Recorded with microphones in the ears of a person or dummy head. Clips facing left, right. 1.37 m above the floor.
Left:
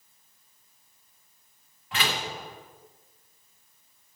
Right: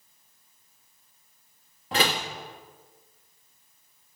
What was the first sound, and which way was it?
A door slam, 35° right (ahead or behind).